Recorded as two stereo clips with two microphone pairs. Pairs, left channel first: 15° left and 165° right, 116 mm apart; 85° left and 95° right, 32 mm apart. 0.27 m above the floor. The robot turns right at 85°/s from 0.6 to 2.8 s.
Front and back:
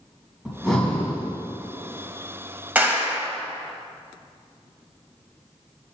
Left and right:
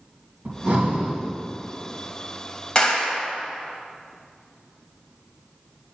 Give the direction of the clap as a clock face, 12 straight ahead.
8 o'clock.